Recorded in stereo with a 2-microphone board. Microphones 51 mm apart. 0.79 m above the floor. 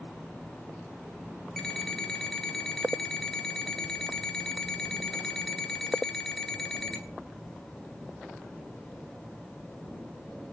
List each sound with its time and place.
1.6 s an alarm clock: 10° left (ahead or behind), 1.6 m